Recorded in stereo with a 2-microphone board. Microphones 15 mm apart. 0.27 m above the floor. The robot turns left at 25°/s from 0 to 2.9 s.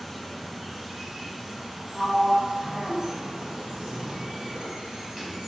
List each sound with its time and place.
0.0 s running water: 5° left, 1.0 m; by 5.5 s 70° right, 1.0 m
1.9 s a sliding door: 15° right (ahead or behind), 0.8 m; by 5.4 s 35° right (ahead or behind), 0.8 m